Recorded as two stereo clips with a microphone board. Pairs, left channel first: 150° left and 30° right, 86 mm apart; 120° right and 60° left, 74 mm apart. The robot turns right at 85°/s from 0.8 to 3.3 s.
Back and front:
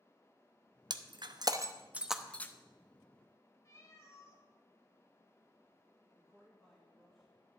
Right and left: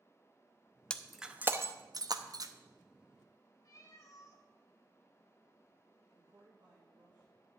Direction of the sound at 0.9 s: 50° right.